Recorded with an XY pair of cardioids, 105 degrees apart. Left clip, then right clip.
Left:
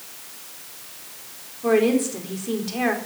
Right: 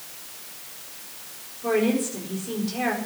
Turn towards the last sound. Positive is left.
turn(degrees=30)